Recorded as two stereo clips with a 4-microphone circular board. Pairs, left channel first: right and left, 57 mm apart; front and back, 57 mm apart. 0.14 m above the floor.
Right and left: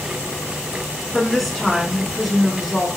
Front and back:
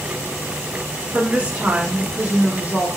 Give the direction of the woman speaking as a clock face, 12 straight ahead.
6 o'clock.